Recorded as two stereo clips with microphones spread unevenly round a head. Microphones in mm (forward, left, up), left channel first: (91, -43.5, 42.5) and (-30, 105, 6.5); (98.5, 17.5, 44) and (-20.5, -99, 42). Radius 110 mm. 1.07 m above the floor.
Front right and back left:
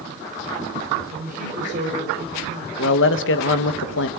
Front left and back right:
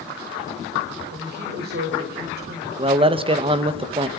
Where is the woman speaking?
175° right, 6.5 m.